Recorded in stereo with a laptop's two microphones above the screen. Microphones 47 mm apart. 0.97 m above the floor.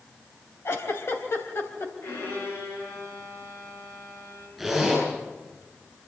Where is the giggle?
65° left (ahead or behind), 3 m.